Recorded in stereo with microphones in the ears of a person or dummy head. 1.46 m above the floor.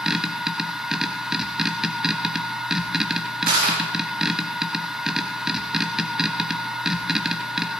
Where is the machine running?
Centre (ahead or behind), 1.0 m.